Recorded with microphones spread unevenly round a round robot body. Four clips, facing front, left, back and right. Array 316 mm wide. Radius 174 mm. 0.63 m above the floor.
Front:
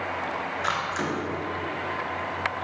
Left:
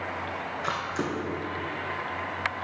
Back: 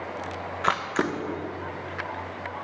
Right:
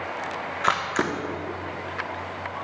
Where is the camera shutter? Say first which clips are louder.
Right 7 dB, back 5 dB; 120° right, 0.7 m.